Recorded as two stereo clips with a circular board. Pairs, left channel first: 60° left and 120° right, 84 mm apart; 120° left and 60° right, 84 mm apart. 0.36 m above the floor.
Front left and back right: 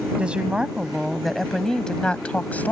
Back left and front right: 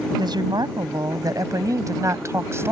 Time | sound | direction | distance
0.2 | a woman speaking | 45° right | ?